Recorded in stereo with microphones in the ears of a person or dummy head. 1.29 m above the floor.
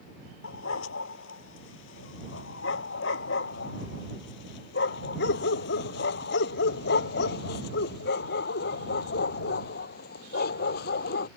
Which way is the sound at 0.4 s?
75° left (ahead or behind).